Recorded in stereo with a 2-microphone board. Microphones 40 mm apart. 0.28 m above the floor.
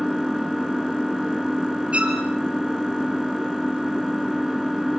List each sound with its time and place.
0.0 s an engine running: 5° right (ahead or behind), 1.3 m
1.9 s a violin: 35° right (ahead or behind), 3 m